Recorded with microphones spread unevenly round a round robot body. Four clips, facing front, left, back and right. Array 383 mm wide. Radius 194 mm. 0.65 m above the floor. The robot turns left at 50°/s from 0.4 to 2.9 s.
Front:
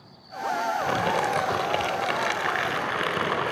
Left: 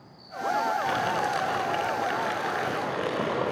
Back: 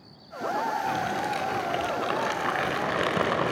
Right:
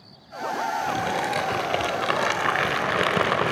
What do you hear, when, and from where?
0.8 s crumpling: straight ahead, 4 m; by 3.5 s 105° right, 4 m